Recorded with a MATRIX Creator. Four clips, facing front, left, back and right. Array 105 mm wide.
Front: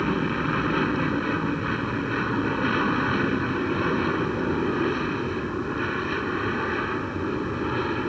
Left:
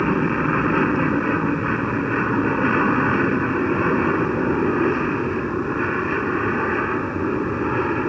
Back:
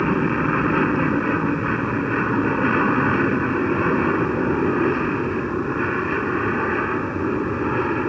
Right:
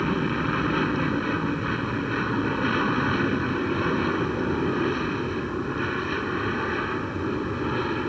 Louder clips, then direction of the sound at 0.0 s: Left 5 dB, back 5 dB; 130° left.